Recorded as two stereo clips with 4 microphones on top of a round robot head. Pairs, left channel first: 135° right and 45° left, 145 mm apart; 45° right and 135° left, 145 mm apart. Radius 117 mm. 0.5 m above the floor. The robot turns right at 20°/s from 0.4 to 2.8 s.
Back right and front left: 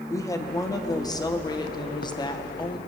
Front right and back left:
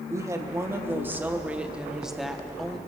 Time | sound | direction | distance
0.1 | a woman speaking | 175° right | 1.1 m